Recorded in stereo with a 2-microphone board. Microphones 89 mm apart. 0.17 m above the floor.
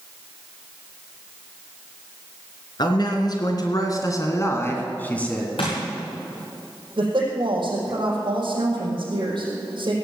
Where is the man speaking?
50° left (ahead or behind), 3 m; by 5.5 s 10° left (ahead or behind), 1.9 m.